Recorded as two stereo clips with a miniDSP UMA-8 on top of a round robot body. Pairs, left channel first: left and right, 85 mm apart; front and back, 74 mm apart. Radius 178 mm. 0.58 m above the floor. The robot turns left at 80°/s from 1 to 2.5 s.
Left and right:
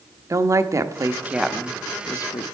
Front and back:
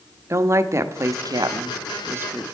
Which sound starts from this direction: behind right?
A woman speaking, at 0.3 s.